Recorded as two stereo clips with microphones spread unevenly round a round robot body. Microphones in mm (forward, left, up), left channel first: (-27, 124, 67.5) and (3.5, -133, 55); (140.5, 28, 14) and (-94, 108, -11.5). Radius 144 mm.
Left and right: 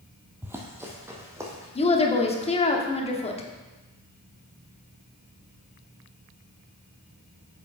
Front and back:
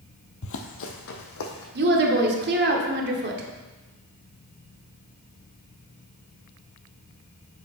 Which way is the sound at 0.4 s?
Straight ahead.